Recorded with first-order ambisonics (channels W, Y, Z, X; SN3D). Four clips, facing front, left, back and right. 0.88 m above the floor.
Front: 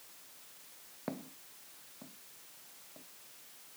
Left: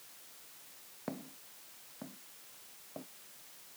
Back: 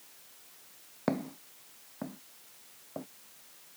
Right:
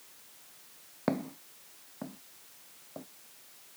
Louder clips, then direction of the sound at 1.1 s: Right 11 dB, back 10 dB; 135° right.